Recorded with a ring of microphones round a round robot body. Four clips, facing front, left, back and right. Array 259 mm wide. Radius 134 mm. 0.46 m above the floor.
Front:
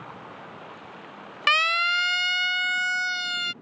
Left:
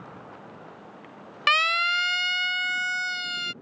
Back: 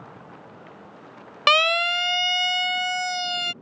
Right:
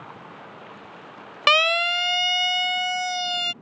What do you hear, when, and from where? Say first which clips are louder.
1.5 s a siren: right 3 dB, back 3 dB; 135° right; by 3.5 s 130° right